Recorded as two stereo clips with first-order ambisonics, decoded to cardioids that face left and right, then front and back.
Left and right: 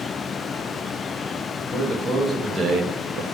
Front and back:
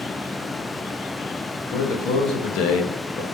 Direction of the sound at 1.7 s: 10° left.